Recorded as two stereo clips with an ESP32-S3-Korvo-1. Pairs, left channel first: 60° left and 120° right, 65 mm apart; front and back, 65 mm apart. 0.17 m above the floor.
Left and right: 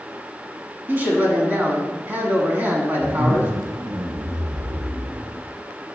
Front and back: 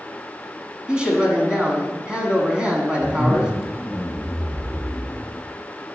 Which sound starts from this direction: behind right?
A man speaking, at 0.9 s.